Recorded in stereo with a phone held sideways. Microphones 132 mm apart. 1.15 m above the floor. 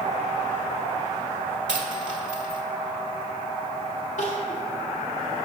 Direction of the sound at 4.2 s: 65° left (ahead or behind).